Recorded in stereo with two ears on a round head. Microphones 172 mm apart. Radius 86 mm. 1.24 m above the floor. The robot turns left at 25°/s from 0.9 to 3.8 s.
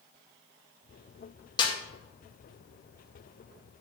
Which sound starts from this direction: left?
A snare drum, at 1.6 s.